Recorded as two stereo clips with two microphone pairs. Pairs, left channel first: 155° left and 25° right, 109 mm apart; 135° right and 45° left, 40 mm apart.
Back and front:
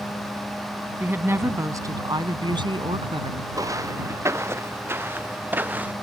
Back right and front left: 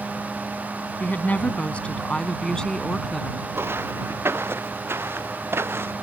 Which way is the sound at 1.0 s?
95° right.